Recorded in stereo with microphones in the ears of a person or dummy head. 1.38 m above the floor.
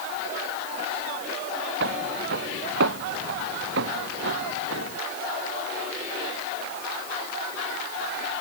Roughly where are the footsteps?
Right.